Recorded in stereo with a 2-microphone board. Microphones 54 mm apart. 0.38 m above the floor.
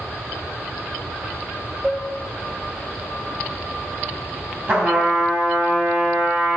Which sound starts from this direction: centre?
Dishes clattering, at 1.8 s.